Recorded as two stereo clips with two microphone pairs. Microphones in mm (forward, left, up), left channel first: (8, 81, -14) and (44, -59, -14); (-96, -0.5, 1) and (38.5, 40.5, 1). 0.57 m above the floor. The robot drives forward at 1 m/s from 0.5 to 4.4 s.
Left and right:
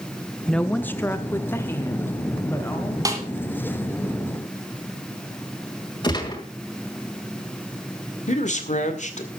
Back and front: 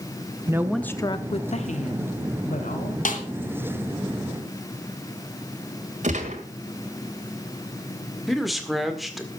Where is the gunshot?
45° left, 2 m.